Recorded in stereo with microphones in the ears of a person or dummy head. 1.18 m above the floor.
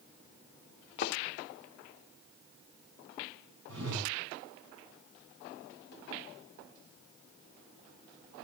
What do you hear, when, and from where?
1.0 s a thud: 45° left (ahead or behind), 1.5 m
3.7 s a whoosh: 80° right, 7.5 m